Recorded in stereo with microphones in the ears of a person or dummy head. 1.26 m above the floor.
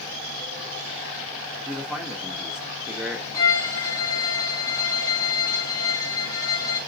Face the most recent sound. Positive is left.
turn(degrees=20)  # may be behind; listen again after turning